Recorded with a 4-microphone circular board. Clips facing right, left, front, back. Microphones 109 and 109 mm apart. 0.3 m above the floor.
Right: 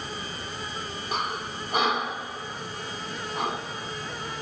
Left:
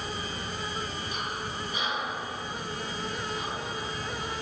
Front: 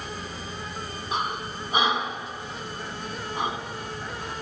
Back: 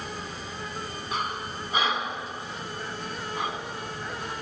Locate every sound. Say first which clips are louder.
1.1 s breathing: right 4 dB, front 2 dB; 70° right, 0.6 m